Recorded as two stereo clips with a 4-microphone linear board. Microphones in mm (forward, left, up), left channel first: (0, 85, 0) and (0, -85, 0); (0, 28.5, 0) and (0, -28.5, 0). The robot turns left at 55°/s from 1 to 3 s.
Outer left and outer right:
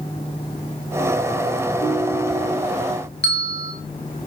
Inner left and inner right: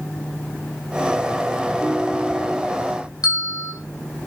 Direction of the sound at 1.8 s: 150° left.